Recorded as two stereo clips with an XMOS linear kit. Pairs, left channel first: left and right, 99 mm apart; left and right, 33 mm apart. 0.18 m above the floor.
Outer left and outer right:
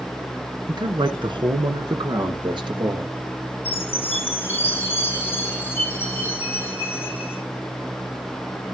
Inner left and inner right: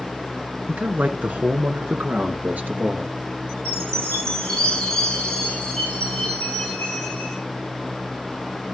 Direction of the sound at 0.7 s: 50° right (ahead or behind).